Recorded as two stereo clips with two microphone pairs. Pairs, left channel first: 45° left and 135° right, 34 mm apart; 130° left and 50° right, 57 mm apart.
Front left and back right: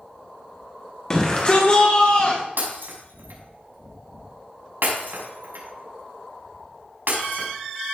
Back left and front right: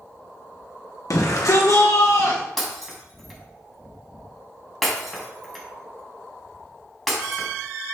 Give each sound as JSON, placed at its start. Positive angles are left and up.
{"t": 1.1, "sound": "a shout", "azimuth_deg": 115, "distance_m": 1.4}
{"t": 2.6, "sound": "breaking glass", "azimuth_deg": -145, "distance_m": 4.5}